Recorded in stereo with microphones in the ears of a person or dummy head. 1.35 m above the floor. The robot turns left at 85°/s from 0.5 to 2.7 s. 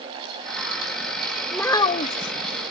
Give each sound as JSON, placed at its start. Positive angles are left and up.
{"t": 1.5, "sound": "a child speaking", "azimuth_deg": 180}